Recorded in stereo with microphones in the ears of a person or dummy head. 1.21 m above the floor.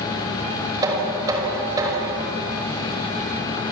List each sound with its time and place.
0.8 s knocking: 20° right (ahead or behind), 5.5 m